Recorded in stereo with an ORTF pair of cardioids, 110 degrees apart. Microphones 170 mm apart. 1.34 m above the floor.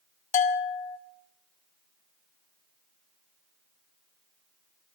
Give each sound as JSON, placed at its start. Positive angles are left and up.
{"t": 0.3, "sound": "a bell", "azimuth_deg": 45, "distance_m": 1.3}